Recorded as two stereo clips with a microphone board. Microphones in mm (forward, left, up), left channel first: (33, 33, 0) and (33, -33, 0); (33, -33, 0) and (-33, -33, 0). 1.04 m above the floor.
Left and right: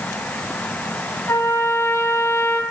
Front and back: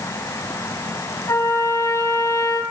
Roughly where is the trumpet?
Ahead left.